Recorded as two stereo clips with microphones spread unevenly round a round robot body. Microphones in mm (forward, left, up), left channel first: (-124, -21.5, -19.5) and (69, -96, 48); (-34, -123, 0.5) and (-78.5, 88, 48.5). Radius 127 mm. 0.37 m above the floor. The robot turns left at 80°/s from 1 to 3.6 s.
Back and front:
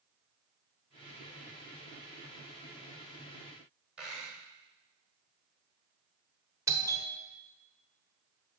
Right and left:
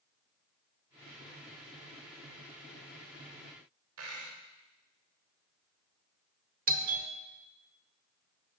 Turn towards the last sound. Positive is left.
turn(degrees=75)